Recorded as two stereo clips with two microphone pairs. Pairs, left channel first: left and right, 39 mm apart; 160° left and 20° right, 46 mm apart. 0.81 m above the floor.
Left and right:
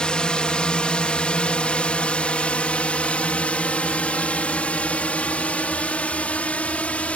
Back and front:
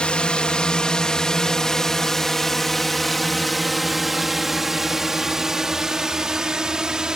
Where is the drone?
120° left; by 7.2 s 45° left.